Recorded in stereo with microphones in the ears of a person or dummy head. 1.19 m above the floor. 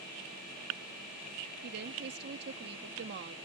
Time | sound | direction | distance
1.6 | a woman speaking | 60° right (ahead or behind) | ?